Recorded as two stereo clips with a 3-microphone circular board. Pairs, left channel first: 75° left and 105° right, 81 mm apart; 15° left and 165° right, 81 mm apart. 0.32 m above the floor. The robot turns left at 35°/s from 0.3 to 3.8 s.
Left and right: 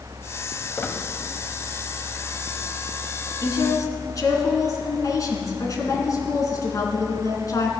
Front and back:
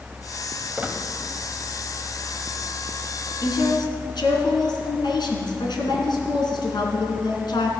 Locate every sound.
0.8 s a squeak: 130° left, 1.2 m; by 1.0 s 120° left, 1.2 m
3.4 s a woman speaking: 50° left, 3 m; by 7.7 s 35° left, 3 m